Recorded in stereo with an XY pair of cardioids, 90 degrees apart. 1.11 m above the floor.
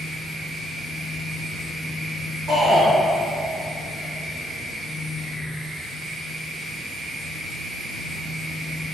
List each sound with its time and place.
0.0 s a machine running: 70° right, 1.1 m
2.5 s a shout: 65° right, 1.4 m